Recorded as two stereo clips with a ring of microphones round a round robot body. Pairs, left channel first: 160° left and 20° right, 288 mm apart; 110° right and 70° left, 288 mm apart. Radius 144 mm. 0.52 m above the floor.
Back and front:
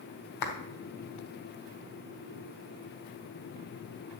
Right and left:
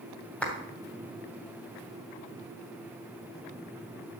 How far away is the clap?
About 2.5 m.